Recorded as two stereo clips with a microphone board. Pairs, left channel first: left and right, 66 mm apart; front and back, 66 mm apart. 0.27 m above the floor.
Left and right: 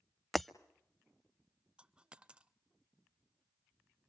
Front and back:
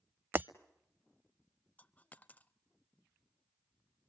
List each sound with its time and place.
0.3 s breaking glass: 175° left, 0.5 m
1.8 s a dropped coin: 35° right, 0.5 m